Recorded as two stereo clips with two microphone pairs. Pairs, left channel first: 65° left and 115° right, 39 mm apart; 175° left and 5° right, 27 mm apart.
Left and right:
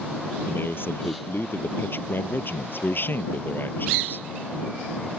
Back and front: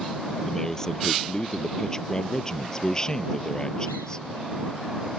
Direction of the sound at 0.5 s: 100° left.